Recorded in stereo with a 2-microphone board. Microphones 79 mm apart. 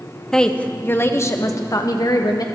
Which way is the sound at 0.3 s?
5° left (ahead or behind).